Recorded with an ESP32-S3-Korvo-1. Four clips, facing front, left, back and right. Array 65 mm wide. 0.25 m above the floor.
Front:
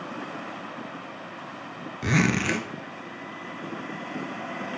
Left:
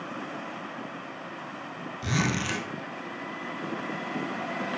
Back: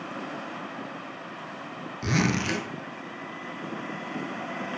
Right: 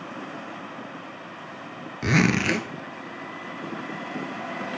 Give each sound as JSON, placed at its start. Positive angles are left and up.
{"t": 2.0, "sound": "a zipper", "azimuth_deg": -70, "distance_m": 0.6}